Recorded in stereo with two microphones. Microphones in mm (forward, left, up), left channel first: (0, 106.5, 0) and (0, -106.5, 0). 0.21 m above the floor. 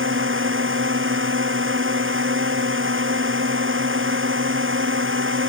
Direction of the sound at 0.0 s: 70° right (ahead or behind).